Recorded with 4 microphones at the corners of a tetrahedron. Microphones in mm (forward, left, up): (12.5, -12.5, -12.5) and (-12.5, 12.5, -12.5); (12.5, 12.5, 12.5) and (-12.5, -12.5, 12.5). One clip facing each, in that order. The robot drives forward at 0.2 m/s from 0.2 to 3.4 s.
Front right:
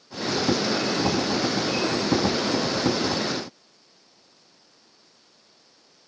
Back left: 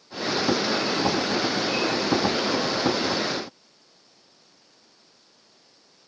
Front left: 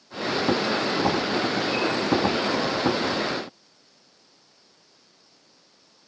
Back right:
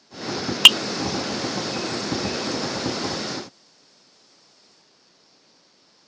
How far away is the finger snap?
I don't hear a finger snap.